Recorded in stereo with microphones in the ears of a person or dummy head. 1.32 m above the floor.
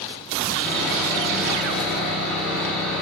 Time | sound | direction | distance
0.6 | sawing | 5° left (ahead or behind) | 3 m